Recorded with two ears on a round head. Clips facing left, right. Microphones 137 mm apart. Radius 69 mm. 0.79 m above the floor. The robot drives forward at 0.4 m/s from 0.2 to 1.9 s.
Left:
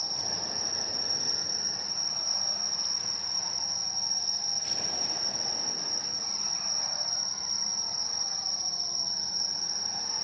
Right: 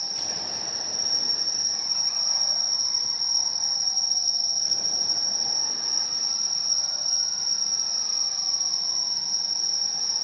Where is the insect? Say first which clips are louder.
Right 1 dB; 50° right (ahead or behind), 2 m; by 10.2 s 70° right (ahead or behind), 1.9 m.